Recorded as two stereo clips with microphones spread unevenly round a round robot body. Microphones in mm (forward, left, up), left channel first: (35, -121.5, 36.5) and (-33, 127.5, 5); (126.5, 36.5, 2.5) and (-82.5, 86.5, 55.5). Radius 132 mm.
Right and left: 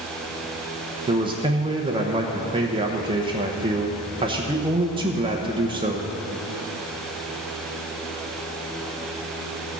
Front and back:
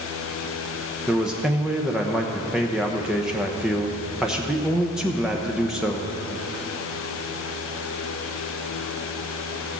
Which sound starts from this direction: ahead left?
A man speaking, at 1.1 s.